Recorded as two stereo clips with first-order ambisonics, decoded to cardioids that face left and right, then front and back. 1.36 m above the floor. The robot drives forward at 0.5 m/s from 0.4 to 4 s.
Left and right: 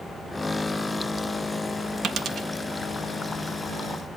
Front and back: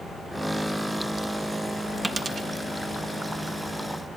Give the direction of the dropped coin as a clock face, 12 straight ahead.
4 o'clock.